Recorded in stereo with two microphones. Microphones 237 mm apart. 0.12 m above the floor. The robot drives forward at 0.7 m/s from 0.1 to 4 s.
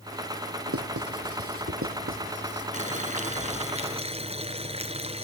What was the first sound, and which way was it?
Writing, 75° right (ahead or behind).